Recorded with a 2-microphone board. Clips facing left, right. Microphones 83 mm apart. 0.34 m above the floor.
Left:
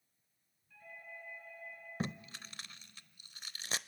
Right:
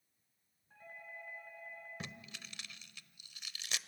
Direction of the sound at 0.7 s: 40° right (ahead or behind).